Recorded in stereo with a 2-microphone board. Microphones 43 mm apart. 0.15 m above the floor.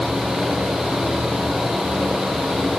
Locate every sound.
Only background noise.